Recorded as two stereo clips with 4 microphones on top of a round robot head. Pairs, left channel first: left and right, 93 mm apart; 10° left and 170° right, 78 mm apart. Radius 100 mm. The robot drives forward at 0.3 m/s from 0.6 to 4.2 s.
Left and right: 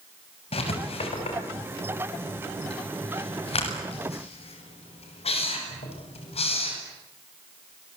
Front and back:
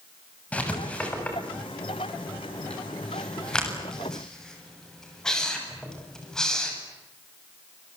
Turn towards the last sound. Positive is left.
turn(degrees=95)